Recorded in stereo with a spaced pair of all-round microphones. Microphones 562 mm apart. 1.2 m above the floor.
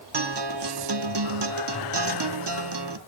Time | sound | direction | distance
0.1 | a guitar | 45° right (ahead or behind) | 0.9 m